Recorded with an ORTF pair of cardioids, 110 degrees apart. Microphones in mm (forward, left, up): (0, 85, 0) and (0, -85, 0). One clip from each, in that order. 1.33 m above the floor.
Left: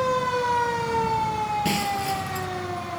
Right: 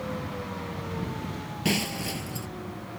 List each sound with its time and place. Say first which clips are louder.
1.6 s breaking glass: left 5 dB; 5° right